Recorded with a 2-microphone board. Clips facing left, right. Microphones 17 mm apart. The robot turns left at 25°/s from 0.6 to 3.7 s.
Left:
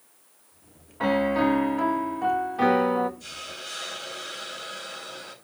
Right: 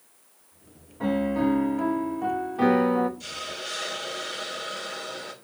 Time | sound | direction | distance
1.0 | a piano | 50° left | 0.6 m
3.2 | a hiss | 65° right (ahead or behind) | 2.5 m